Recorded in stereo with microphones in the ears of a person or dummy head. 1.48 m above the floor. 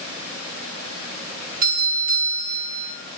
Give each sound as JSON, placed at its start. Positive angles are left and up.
{"t": 1.6, "sound": "a doorbell", "side_deg": -45, "distance_m": 2.5}